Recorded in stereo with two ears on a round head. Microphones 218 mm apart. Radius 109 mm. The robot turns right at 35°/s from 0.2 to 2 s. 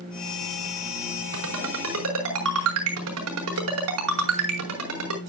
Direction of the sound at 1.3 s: 85° right.